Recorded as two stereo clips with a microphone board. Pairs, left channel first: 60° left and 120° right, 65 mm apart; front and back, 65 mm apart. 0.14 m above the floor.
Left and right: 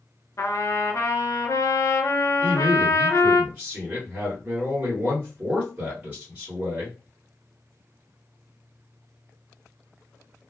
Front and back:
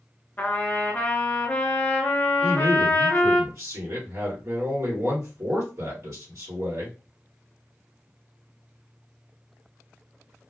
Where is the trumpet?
55° left, 0.8 m.